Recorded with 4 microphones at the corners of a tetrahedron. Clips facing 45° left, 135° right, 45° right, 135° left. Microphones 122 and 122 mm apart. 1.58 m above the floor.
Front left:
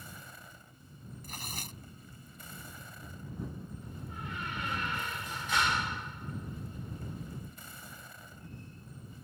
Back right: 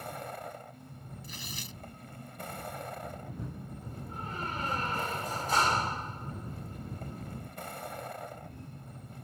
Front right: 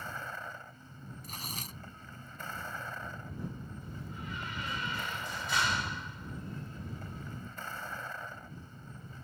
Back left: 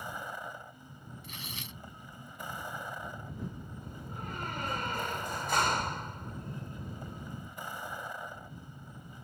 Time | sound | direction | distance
0.0 | a vehicle | 150° right | ?
1.2 | tearing paper | 5° left | ?
3.8 | a door slam | 175° left | ?